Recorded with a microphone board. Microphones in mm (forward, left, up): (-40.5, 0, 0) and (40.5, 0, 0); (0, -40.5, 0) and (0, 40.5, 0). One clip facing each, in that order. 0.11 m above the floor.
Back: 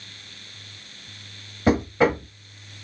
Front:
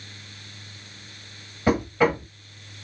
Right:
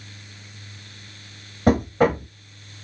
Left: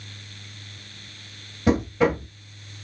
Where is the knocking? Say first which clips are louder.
Back 1 dB, right 2 dB; 115° right, 1.3 m.